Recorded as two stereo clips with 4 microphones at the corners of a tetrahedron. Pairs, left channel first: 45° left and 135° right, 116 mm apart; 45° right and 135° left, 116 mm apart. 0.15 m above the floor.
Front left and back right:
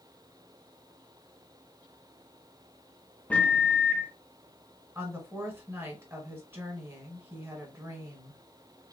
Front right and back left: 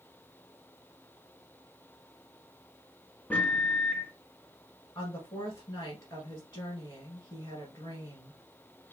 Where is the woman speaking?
85° right, 1.6 m.